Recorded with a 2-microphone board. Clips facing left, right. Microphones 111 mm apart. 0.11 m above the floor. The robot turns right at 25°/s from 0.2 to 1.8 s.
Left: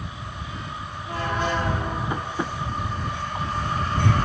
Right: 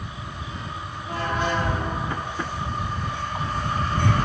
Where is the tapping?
15° left (ahead or behind).